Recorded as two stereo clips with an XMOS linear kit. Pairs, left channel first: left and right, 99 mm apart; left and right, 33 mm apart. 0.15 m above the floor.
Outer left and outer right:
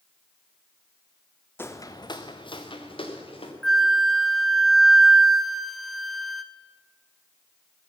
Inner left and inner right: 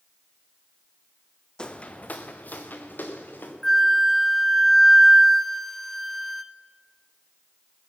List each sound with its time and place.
1.6 s footsteps: 20° left (ahead or behind), 0.7 m; by 3.5 s 65° left (ahead or behind), 2 m
3.6 s a flute: centre (ahead or behind), 0.6 m